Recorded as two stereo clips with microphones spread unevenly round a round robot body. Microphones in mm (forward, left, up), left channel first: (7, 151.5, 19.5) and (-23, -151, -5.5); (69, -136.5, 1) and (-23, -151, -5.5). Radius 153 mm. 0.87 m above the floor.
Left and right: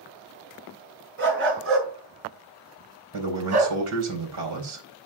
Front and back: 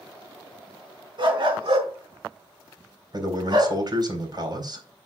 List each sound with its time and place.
1.2 s a dog barking: 145° right, 4.5 m; by 3.8 s 135° right, 3.5 m
3.1 s a man speaking: 130° right, 4 m